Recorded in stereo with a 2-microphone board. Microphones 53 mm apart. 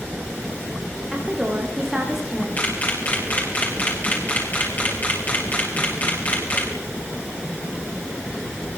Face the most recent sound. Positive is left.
turn(degrees=35)  # may be behind; listen again after turning